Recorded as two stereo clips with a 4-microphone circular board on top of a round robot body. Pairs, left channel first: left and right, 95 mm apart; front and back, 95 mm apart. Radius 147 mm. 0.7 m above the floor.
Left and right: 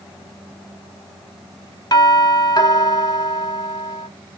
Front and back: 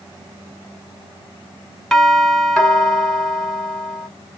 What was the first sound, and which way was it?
A doorbell, 85° left.